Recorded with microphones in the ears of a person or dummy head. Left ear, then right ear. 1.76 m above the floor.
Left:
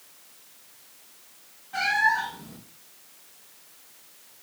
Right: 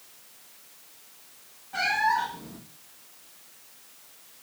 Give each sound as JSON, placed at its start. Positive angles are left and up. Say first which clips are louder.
{"t": 1.7, "sound": "a cat meowing", "louder": "left 2 dB", "side_deg": 5, "distance_m": 0.9}